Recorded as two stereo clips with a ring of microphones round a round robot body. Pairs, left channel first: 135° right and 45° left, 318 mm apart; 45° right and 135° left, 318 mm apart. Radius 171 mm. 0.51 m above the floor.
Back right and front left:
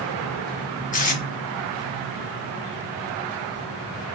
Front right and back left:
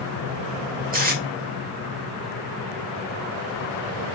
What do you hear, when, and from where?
0.9 s tape being pulled: 175° left, 1.5 m